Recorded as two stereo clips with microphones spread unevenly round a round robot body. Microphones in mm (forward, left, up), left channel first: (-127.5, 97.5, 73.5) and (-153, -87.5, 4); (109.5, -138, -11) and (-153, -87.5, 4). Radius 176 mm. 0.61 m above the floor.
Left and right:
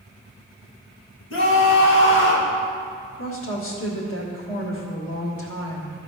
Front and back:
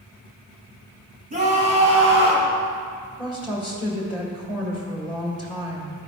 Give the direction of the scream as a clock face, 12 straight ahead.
9 o'clock.